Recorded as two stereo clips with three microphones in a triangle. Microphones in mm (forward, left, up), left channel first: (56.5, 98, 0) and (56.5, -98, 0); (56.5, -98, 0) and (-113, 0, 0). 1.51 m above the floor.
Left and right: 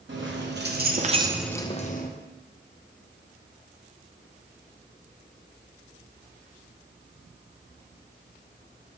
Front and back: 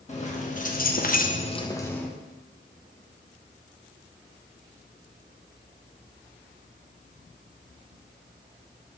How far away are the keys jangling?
About 1.4 m.